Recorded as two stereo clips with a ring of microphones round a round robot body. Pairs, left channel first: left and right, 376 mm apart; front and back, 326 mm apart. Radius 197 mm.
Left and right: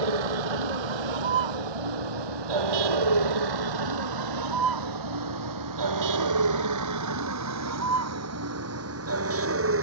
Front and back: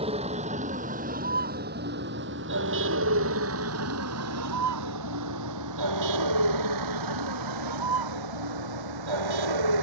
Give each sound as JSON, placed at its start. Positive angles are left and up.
{"t": 0.0, "sound": "a vehicle", "azimuth_deg": -105}